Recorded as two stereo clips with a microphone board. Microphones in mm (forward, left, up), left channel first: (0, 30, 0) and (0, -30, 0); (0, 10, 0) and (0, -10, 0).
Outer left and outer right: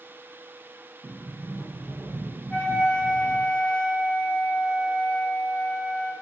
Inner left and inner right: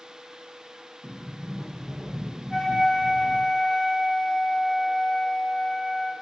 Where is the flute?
20° left (ahead or behind), 1.1 m.